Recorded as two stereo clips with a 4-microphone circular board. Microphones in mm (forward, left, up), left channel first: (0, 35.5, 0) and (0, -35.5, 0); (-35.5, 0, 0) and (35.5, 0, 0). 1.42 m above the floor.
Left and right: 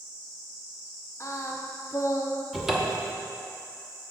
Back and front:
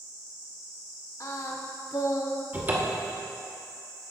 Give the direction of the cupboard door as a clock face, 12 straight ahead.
12 o'clock.